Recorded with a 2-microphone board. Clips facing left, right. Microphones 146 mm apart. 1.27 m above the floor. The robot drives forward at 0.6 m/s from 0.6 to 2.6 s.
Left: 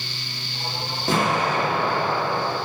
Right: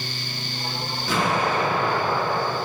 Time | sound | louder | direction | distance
1.1 | an explosion | left 1 dB | 50° left (ahead or behind) | 1.4 m